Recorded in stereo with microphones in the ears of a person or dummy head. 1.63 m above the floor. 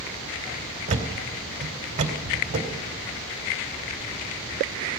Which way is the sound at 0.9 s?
35° right (ahead or behind).